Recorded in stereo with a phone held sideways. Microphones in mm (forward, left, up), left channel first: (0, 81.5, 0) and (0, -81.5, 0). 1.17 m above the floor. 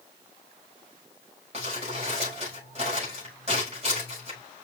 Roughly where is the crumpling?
Right.